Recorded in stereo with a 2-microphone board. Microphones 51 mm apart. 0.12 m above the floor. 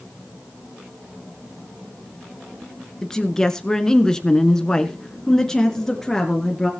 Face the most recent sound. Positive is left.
turn(degrees=5)  # may be behind; listen again after turning